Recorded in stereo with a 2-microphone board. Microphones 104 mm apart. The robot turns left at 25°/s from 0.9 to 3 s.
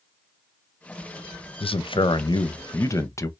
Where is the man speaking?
65° left, 0.6 m; by 3.3 s 30° left, 0.6 m.